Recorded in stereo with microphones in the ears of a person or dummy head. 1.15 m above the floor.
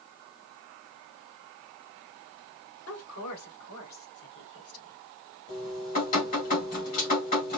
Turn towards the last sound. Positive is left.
turn(degrees=45)  # may be behind; listen again after turning